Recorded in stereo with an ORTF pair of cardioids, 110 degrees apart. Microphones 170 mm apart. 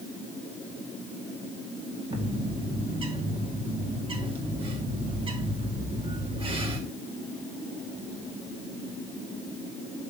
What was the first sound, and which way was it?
A bird, 30° right.